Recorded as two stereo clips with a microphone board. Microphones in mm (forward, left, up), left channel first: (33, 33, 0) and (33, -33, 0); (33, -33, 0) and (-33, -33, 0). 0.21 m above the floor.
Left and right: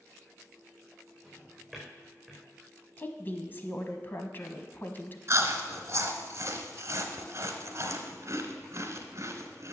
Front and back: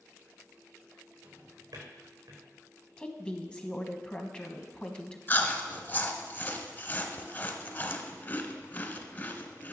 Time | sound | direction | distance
1.2 | a drawer | 170° left | 4 m
3.0 | a woman speaking | 65° left | 1.2 m
5.3 | chewing | 55° right | 1.2 m